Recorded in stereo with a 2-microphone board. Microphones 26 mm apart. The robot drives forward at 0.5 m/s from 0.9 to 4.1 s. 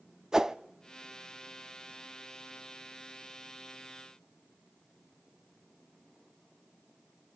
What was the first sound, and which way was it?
A whoosh, 25° right (ahead or behind).